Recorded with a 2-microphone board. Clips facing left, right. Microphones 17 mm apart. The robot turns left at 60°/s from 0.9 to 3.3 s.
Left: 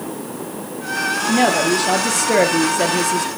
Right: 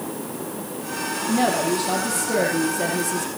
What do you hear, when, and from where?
1.3 s a woman speaking: 140° left, 3 m; by 3.3 s 20° left, 3 m